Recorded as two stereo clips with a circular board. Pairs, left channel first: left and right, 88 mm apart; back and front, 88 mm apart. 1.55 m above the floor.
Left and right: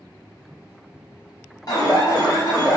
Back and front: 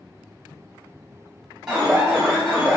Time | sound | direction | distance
1.7 | an alarm | 80° left | 1.0 m